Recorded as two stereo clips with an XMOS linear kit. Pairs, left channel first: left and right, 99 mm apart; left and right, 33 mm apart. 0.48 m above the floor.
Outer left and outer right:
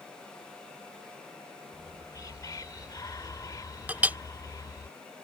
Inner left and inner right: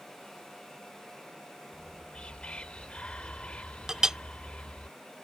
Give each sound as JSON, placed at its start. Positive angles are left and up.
{"t": 1.7, "sound": "whispering", "side_deg": 35}
{"t": 3.9, "sound": "a clink", "side_deg": -15}